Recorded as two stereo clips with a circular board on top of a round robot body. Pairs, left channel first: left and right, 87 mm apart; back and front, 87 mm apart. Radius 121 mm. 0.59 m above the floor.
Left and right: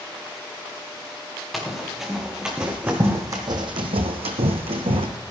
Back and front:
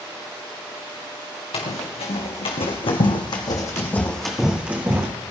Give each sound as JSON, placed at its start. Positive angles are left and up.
{"t": 1.5, "sound": "running footsteps", "azimuth_deg": 180, "distance_m": 4.0}